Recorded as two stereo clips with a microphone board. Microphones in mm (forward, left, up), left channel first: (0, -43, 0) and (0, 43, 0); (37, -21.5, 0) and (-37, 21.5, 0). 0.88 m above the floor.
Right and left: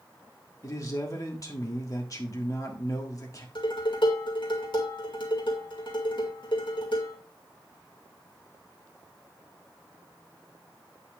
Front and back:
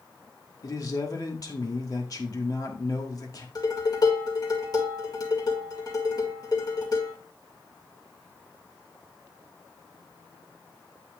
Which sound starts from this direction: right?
Dishes clattering, at 3.5 s.